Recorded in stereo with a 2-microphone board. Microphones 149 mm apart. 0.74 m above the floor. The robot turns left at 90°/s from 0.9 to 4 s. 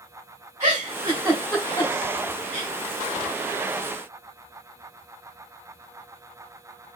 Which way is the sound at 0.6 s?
50° right (ahead or behind).